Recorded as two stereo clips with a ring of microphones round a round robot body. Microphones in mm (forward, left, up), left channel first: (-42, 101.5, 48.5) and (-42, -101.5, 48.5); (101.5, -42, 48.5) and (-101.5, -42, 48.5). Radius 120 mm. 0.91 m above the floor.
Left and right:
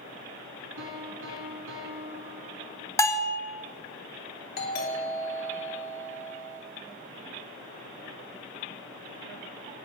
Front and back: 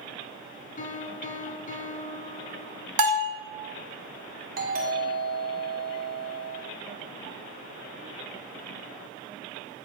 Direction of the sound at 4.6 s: 130° left.